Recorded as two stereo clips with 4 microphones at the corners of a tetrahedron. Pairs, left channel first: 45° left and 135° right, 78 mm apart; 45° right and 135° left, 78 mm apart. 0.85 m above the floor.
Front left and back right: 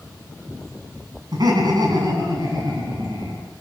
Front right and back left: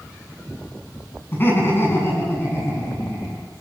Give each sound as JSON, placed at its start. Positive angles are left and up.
{"t": 1.3, "sound": "laughter", "azimuth_deg": -105, "distance_m": 7.5}